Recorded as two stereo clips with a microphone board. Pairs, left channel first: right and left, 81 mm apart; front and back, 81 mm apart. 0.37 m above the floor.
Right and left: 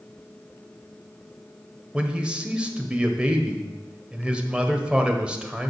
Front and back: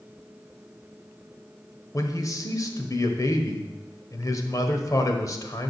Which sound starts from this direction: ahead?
A man speaking, at 1.9 s.